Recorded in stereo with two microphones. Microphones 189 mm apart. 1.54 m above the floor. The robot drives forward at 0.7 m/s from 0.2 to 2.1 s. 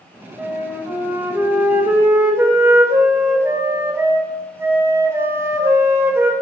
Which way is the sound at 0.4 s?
10° right (ahead or behind).